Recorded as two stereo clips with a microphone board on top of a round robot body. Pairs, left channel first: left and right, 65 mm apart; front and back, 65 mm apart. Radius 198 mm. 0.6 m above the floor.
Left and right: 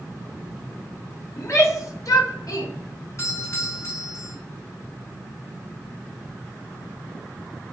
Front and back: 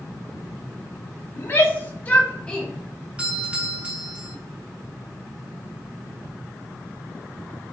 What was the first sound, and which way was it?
A shout, 55° left.